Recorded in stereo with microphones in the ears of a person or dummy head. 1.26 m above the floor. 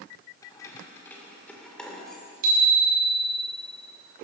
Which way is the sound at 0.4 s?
10° left (ahead or behind).